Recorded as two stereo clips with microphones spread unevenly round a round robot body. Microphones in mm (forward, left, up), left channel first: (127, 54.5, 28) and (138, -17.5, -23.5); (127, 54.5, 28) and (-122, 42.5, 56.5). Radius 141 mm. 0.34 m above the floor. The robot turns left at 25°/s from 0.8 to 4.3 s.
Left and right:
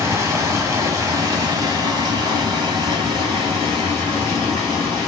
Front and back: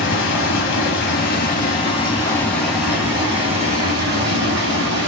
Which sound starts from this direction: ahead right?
Running water, at 0.0 s.